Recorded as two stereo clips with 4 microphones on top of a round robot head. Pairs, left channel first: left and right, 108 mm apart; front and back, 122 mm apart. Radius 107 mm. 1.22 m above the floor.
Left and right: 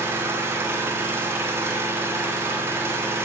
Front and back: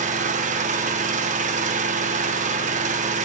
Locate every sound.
0.0 s an engine running: 160° right, 0.8 m